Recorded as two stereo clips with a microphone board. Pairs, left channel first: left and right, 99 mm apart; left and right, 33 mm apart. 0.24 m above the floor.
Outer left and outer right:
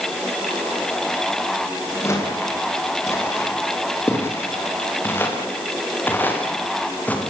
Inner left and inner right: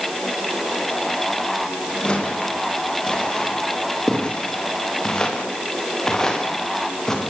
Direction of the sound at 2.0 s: 25° left (ahead or behind).